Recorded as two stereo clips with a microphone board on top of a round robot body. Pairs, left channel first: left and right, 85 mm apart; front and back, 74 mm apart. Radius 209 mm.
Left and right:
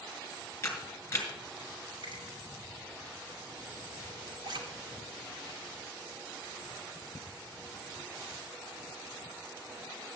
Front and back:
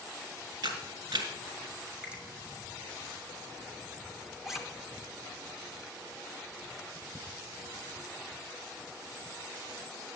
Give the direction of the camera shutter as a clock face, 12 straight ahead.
7 o'clock.